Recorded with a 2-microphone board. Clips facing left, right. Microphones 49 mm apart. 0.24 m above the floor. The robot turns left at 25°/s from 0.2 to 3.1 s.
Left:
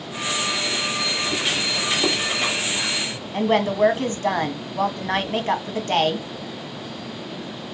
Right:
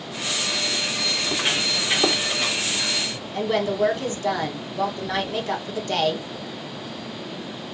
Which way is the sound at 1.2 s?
30° right (ahead or behind).